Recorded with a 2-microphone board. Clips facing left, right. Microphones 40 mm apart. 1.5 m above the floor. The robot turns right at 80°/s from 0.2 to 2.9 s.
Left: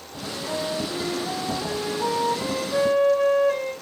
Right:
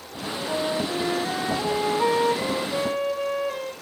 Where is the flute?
155° left, 2 m; by 3.7 s straight ahead, 2 m.